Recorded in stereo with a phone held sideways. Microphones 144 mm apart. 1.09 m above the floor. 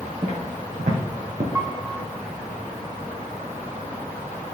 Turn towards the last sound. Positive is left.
turn(degrees=-15)  # may be behind; listen again after turning